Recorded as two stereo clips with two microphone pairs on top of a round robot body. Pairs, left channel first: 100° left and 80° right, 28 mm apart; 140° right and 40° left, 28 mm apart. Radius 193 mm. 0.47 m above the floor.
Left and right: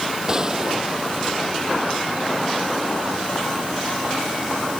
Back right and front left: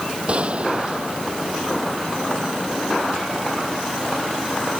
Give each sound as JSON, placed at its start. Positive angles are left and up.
{"t": 0.3, "sound": "a gunshot", "azimuth_deg": -15}